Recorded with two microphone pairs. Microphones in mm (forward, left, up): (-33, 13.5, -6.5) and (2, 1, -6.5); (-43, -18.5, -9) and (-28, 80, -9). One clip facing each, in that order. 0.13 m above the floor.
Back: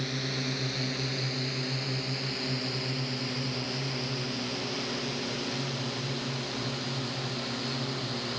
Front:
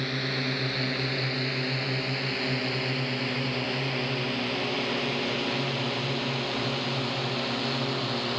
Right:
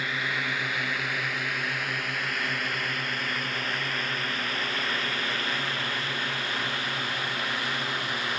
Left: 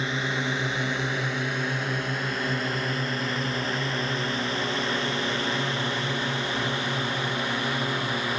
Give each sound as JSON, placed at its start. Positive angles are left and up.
{"t": 0.0, "sound": "a drone", "azimuth_deg": 30}